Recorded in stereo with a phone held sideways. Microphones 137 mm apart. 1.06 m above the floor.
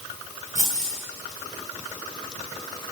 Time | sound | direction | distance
0.6 | keys jangling | 55° right (ahead or behind) | 9 m